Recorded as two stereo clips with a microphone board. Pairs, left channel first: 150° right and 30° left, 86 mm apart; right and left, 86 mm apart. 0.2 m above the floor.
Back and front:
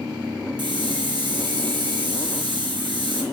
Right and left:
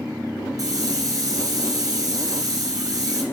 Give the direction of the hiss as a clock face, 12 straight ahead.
10 o'clock.